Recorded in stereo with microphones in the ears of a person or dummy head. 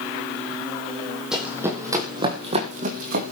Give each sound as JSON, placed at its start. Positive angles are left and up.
{"t": 1.3, "sound": "running footsteps", "side_deg": -5, "distance_m": 3.5}